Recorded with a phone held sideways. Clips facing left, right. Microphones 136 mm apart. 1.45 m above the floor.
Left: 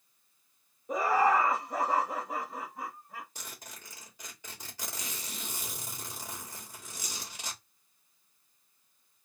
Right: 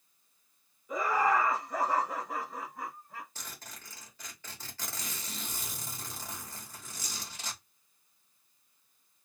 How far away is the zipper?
About 2 m.